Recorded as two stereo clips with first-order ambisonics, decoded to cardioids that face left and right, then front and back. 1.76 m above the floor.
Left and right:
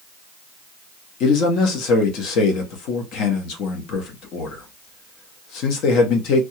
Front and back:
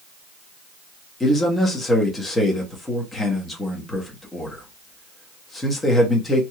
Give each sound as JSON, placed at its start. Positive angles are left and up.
{"t": 1.2, "sound": "a man speaking", "azimuth_deg": 75, "distance_m": 0.9}